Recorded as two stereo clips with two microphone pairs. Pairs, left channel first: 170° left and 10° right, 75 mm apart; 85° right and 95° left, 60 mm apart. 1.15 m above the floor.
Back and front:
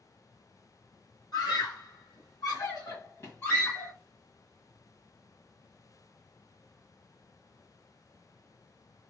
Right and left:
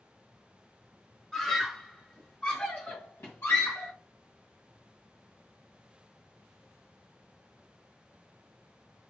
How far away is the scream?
About 1.9 m.